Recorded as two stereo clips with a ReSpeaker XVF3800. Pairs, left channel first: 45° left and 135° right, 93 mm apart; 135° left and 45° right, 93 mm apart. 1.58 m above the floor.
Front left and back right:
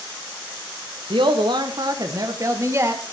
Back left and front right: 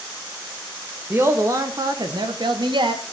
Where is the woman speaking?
110° right, 1.4 m; by 3.0 s 70° right, 2 m.